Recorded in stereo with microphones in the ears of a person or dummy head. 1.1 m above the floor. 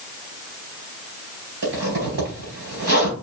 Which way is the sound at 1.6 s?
70° right (ahead or behind).